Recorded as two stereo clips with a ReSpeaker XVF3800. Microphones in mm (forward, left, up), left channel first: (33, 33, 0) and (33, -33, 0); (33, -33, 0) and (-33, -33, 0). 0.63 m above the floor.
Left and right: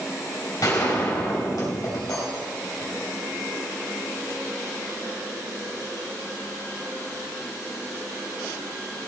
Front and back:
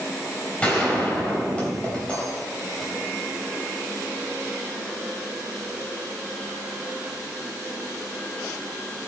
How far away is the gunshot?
About 4 m.